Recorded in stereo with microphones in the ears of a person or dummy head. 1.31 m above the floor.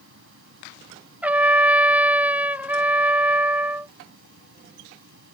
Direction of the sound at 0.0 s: 70° right (ahead or behind).